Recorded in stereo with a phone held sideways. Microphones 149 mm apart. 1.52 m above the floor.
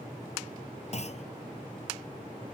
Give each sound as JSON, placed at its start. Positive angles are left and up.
{"t": 0.9, "sound": "a clunk", "side_deg": 50}